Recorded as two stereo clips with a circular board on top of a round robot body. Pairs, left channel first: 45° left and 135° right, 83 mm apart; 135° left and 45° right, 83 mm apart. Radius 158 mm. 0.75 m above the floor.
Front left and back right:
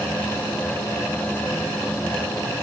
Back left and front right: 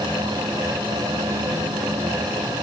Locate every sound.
Only background noise.